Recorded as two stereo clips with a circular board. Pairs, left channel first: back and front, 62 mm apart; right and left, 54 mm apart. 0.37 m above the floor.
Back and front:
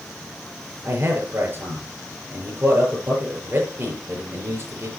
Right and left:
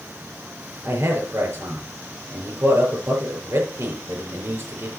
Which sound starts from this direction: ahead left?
A man speaking, at 0.8 s.